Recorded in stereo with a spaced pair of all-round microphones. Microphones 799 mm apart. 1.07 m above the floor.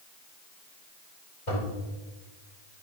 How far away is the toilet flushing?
About 4 m.